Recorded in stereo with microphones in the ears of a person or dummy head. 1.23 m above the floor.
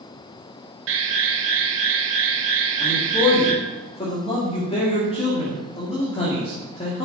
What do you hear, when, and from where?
0.9 s an alarm: 70° right (ahead or behind), 2.5 m
2.8 s a man speaking: 25° left (ahead or behind), 2 m